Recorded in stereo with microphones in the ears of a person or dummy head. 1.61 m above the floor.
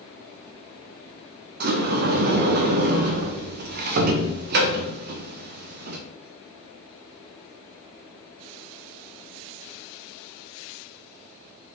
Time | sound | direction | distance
1.6 | a sliding door | 50° right (ahead or behind) | 0.7 m